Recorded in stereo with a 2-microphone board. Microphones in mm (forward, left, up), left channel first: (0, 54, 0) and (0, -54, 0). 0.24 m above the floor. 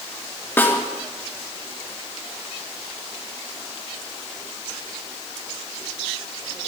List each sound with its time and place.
0.6 s a snare drum: 20° left (ahead or behind), 3.5 m